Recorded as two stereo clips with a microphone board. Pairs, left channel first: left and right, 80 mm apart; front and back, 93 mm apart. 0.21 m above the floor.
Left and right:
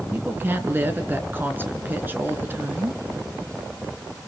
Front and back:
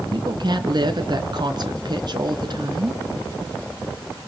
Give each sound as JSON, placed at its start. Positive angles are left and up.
{"t": 0.1, "sound": "a woman speaking", "azimuth_deg": -150, "distance_m": 2.5}